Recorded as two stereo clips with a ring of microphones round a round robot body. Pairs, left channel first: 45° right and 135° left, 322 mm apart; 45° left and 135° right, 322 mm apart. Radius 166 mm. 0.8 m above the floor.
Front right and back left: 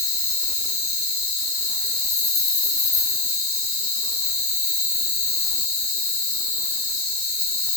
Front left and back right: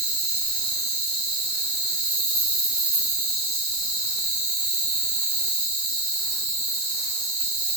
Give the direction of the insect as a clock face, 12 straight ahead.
3 o'clock.